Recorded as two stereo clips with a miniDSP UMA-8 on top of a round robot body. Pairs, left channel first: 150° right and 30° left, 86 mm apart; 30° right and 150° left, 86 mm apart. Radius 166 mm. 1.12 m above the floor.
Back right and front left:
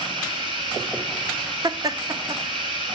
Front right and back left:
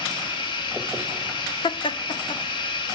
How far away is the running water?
About 1.4 m.